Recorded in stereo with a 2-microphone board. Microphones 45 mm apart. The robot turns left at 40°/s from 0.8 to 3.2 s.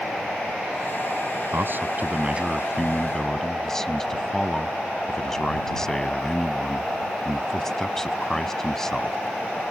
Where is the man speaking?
120° right; by 9.2 s 170° left.